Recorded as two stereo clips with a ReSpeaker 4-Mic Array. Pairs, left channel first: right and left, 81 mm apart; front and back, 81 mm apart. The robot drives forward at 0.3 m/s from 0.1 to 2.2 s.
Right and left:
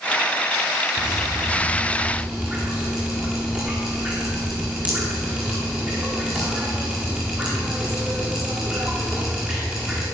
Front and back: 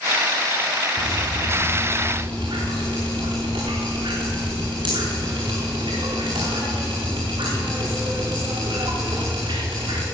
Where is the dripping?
160° left, 4 m.